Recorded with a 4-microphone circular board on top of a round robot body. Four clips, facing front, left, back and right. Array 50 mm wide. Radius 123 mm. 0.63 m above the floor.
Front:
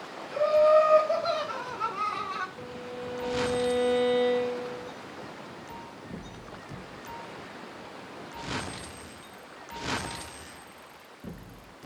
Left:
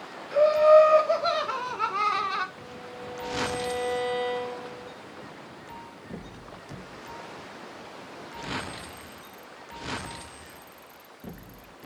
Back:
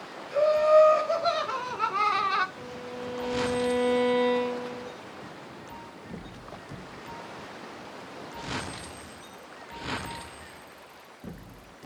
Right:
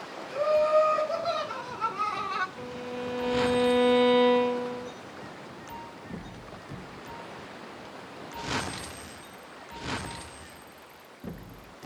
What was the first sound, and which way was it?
Laughter, 105° left.